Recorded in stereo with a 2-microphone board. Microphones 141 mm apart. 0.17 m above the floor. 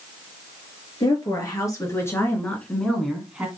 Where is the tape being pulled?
I don't hear tape being pulled.